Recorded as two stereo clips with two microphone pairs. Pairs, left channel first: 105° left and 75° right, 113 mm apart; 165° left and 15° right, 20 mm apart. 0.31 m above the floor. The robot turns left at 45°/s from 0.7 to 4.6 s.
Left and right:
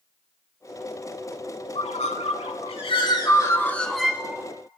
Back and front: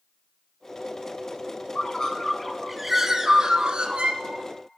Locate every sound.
1.8 s a bird: 115° left, 0.5 m; by 4.4 s 5° right, 0.5 m